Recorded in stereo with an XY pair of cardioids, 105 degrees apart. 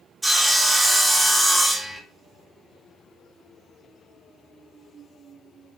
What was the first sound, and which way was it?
Sawing, 10° right.